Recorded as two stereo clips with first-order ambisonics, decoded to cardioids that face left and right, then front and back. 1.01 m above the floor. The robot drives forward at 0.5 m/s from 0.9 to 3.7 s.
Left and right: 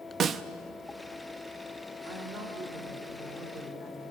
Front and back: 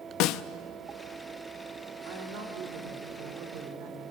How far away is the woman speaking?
About 2.5 m.